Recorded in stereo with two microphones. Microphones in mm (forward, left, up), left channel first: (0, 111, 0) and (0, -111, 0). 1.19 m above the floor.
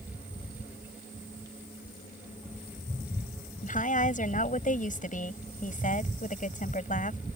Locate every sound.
3.6 s a woman speaking: 35° left (ahead or behind)